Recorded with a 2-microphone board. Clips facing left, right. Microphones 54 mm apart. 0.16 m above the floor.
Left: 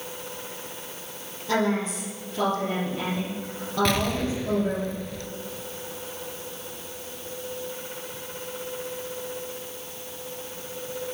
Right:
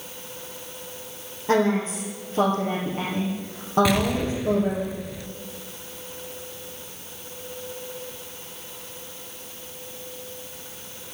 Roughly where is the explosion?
Centre.